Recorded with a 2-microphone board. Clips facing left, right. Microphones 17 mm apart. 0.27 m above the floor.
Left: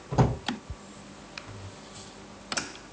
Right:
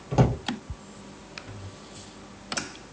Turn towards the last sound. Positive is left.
turn(degrees=-50)  # may be behind; listen again after turning